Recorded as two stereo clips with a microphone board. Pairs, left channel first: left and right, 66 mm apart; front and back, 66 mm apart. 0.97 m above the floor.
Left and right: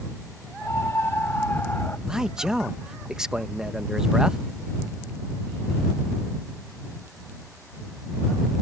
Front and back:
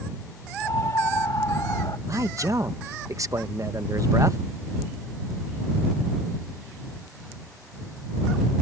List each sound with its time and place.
0.6 s a scream: 40° left; by 2.0 s 30° left
2.1 s a man speaking: 170° right